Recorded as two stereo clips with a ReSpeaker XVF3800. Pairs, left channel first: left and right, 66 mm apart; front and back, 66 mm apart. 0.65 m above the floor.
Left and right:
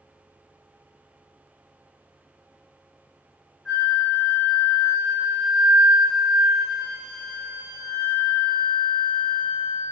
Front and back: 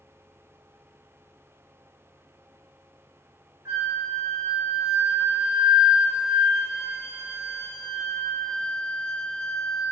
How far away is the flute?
About 1.6 m.